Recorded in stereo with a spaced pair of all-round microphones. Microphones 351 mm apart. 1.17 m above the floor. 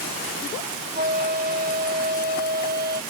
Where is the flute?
25° right (ahead or behind).